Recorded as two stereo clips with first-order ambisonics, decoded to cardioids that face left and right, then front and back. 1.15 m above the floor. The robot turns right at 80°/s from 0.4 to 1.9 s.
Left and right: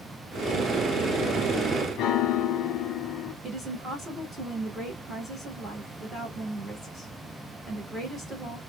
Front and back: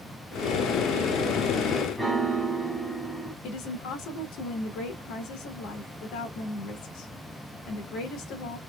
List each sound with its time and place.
2.0 s a piano: 90° left, 0.8 m
3.4 s a woman speaking: 20° right, 1.1 m